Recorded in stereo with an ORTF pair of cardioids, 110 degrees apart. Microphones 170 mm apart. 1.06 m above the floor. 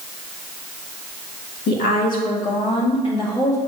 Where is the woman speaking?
70° left, 1.9 m; by 3.6 s 20° left, 2.5 m.